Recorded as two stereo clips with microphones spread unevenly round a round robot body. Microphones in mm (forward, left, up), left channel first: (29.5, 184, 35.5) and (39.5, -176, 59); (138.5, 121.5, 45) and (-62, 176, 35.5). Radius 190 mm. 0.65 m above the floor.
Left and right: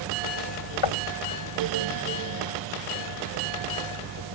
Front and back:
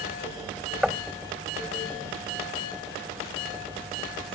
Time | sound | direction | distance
0.8 | knocking | 75° left | ?